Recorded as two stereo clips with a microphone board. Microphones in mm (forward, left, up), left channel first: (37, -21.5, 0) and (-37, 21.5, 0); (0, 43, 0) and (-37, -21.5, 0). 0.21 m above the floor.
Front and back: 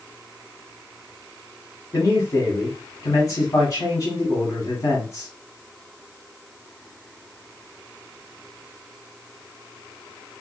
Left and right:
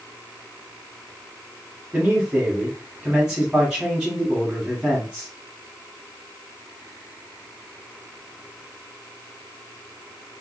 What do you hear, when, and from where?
1.9 s a man speaking: 50° right, 1.2 m